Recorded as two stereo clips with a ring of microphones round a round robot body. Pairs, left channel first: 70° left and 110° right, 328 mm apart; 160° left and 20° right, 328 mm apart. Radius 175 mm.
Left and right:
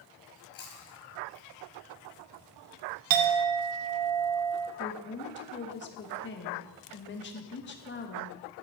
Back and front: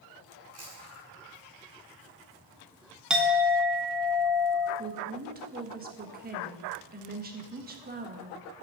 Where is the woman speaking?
30° left, 1.3 m.